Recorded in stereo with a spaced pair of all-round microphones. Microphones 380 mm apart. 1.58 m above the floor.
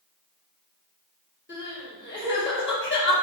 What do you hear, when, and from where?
1.5 s crying: 30° left (ahead or behind), 1.1 m